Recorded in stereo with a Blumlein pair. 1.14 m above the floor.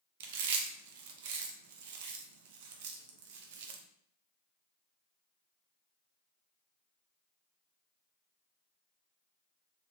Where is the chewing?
50° right, 0.5 m.